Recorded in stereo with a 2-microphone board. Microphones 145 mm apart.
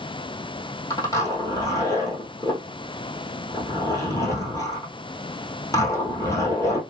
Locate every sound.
0.9 s a zipper: 25° left (ahead or behind), 1.3 m